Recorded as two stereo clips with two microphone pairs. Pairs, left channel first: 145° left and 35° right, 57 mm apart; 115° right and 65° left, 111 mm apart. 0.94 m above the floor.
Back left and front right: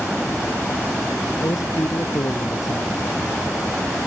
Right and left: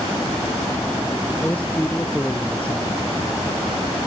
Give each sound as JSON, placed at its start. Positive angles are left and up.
{"t": 1.4, "sound": "a man speaking", "azimuth_deg": 165}